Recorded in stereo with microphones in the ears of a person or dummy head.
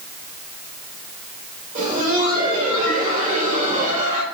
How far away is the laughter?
About 4 m.